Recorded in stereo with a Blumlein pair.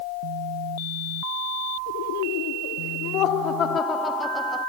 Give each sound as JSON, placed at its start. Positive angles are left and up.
{"t": 1.9, "sound": "laughter", "azimuth_deg": 50}